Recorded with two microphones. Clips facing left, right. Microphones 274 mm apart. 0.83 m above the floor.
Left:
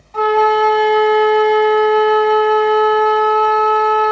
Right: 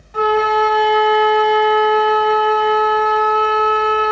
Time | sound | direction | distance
0.1 | a flute | 10° right (ahead or behind) | 1.0 m